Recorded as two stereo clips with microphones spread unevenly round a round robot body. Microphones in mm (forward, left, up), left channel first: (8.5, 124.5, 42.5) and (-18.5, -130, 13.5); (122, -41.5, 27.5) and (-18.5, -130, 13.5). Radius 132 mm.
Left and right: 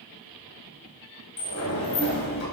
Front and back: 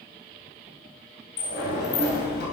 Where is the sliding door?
40° left, 4 m.